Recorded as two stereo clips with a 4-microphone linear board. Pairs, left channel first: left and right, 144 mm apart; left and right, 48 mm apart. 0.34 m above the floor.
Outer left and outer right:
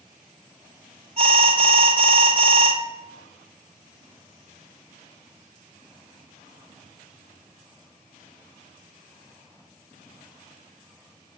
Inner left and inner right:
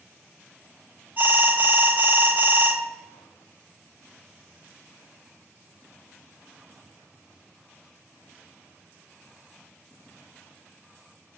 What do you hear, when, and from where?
1.2 s an alarm: 45° right (ahead or behind), 1.6 m